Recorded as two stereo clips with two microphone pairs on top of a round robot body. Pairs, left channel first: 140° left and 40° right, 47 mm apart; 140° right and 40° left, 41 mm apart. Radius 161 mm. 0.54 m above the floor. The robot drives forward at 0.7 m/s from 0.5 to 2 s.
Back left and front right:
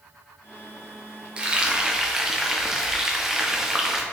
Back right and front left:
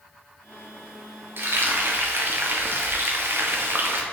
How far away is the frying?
About 1.7 m.